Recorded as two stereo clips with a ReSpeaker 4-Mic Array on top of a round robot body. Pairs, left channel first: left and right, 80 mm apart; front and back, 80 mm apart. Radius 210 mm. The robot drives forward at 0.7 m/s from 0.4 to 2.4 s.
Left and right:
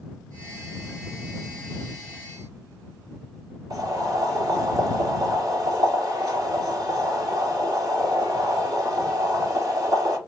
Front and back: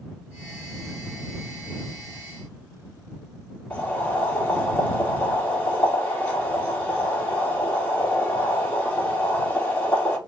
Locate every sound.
3.7 s boiling: 65° right, 2.5 m